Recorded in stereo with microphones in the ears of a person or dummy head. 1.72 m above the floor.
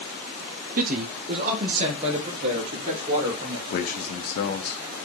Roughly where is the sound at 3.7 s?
Left.